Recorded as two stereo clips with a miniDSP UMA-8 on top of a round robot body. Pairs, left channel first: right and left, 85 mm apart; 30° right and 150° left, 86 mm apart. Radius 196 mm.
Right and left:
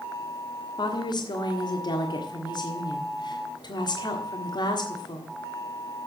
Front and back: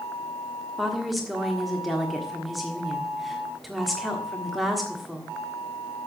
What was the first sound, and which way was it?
A woman speaking, 120° right.